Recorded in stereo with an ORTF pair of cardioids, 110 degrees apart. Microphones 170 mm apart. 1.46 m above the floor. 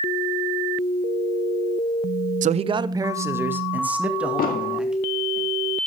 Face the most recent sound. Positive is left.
turn(degrees=60)